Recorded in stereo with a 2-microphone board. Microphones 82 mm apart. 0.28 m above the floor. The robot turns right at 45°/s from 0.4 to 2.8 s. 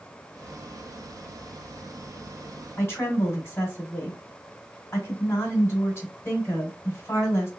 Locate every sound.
2.8 s a woman speaking: 30° left (ahead or behind), 1.2 m